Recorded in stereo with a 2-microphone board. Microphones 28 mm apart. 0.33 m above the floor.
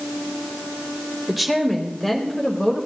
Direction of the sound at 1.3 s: 5° right (ahead or behind).